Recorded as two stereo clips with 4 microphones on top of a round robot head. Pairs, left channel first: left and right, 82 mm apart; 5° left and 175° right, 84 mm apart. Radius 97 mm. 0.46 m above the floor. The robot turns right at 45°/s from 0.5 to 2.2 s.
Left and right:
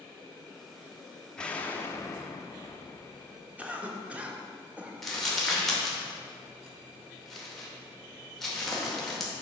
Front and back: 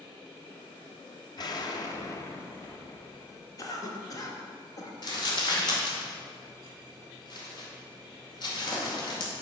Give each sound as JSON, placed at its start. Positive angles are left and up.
{"t": 1.4, "sound": "an explosion", "azimuth_deg": 10, "distance_m": 1.0}
{"t": 3.6, "sound": "a cough", "azimuth_deg": -20, "distance_m": 1.4}
{"t": 5.0, "sound": "crumpling", "azimuth_deg": 5, "distance_m": 2.0}